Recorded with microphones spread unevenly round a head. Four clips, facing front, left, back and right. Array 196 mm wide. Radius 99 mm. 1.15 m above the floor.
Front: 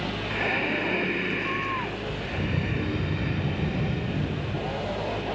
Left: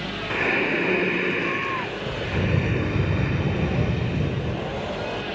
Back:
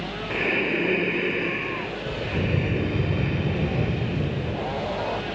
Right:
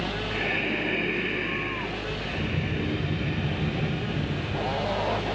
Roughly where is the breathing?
Behind left.